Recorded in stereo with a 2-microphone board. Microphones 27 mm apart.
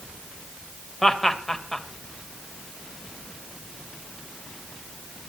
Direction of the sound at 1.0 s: 5° left (ahead or behind).